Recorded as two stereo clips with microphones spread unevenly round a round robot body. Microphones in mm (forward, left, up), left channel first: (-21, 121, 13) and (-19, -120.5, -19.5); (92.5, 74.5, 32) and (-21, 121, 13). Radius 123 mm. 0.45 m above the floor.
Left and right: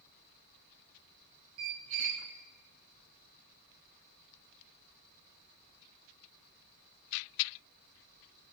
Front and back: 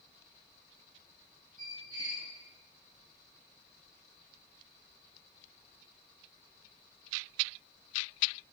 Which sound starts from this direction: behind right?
A squeak, at 1.6 s.